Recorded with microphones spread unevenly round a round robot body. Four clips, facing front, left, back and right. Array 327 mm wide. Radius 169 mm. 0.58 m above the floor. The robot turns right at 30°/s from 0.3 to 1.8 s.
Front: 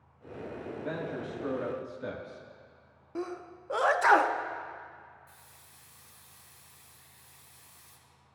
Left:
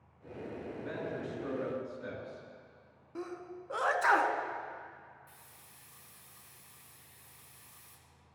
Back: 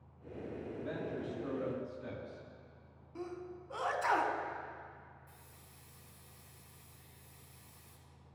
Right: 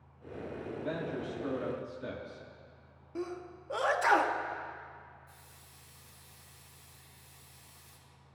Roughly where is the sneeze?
Ahead.